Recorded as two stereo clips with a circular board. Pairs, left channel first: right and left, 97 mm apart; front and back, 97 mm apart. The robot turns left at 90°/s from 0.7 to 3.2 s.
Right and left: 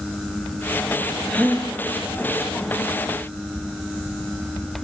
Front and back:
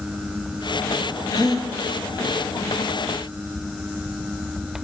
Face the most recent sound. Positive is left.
turn(degrees=180)